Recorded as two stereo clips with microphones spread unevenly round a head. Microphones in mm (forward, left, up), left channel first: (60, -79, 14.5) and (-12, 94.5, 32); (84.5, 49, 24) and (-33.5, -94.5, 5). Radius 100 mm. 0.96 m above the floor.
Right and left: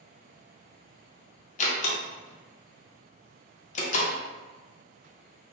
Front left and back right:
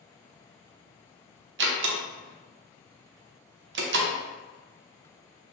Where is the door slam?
115° right, 0.5 m.